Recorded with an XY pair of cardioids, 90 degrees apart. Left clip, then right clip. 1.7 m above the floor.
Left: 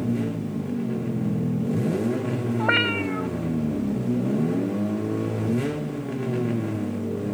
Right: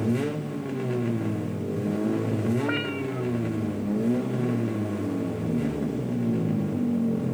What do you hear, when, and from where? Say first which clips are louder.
2.6 s a cat meowing: left 7 dB; 65° left